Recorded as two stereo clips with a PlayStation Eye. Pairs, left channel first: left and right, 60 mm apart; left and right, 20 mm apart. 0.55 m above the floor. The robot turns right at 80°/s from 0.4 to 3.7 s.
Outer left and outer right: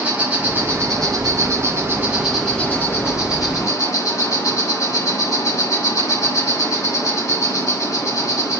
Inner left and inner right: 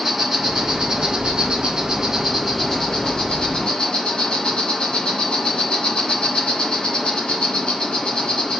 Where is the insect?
160° right, 6 m; by 8.6 s 100° left, 6 m.